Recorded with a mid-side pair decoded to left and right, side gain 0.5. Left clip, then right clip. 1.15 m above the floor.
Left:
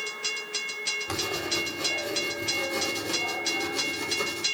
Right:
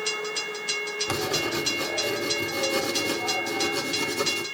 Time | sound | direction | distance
1.1 | writing | 35° right | 2.5 m